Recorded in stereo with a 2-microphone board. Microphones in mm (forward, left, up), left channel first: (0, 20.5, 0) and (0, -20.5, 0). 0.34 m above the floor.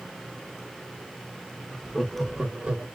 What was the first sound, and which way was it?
Laughter, 15° left (ahead or behind).